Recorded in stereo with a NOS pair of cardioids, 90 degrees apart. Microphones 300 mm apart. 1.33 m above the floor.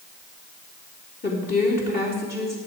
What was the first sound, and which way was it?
A woman speaking, 30° left.